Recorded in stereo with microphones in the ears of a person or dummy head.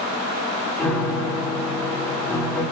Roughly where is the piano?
Centre.